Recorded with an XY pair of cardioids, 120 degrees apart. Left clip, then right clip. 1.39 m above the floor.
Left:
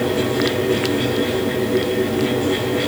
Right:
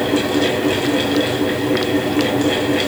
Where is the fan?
70° right, 5 m.